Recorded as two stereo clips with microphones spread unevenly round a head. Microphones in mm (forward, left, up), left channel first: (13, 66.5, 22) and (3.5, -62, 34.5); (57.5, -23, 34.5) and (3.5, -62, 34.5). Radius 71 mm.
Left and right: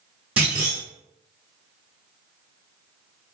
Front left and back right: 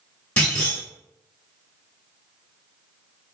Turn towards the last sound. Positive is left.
turn(degrees=-20)